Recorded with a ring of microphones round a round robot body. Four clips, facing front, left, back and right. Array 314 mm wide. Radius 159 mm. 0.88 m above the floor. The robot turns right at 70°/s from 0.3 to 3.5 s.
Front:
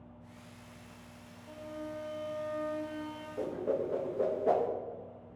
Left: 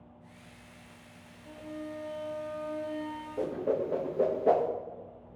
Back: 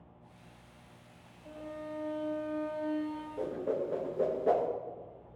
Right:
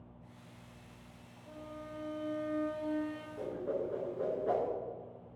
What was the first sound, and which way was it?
A violin, 150° left.